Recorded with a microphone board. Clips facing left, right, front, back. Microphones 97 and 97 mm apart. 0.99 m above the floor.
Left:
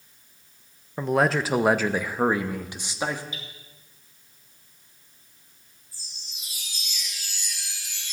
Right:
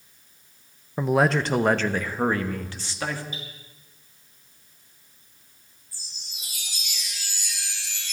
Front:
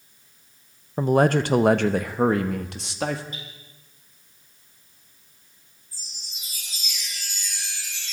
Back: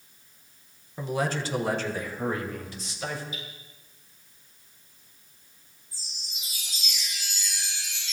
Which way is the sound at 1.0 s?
10° right.